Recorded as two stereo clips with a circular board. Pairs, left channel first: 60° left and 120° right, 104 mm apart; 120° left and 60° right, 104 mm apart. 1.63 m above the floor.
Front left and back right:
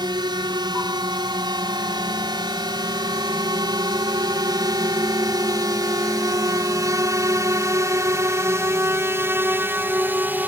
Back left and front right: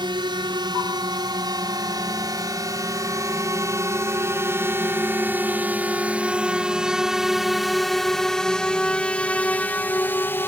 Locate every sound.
0.0 s a drone: 85° right; by 10.5 s 175° left